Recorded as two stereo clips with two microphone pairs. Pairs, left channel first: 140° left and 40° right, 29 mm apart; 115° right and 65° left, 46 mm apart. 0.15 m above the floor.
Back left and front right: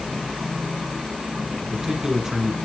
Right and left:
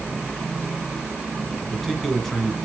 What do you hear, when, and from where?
1.6 s a man speaking: 35° right, 1.2 m